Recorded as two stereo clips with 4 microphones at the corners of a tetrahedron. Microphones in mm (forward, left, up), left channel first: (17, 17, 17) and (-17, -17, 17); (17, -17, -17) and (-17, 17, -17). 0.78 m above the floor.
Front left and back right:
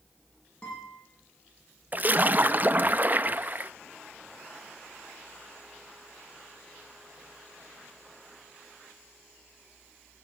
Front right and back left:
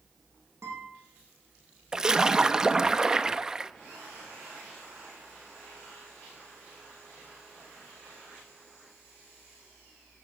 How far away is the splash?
About 0.6 m.